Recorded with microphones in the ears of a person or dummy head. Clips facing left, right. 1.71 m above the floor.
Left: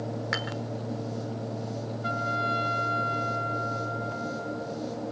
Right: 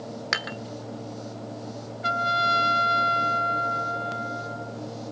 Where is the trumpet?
75° right (ahead or behind), 0.6 m.